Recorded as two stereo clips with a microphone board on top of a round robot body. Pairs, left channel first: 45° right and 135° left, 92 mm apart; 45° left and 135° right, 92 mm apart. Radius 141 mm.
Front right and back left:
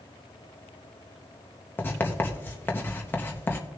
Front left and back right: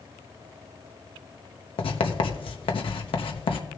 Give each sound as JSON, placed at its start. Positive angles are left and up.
{"t": 1.8, "sound": "writing", "azimuth_deg": 25, "distance_m": 0.9}